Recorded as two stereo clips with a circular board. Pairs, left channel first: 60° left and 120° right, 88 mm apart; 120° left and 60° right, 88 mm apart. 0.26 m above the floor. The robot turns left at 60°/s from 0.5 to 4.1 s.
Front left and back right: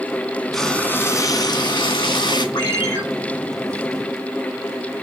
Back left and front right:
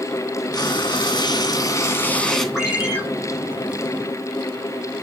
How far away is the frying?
About 3 m.